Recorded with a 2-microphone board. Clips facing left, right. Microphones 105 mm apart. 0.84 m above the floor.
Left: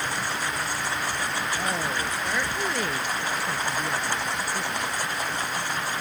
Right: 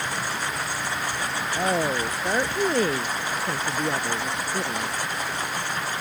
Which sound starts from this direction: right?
A woman speaking, at 1.6 s.